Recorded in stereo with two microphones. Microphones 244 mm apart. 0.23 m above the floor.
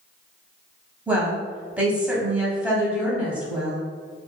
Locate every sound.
1.1 s a woman speaking: 5° right (ahead or behind), 1.1 m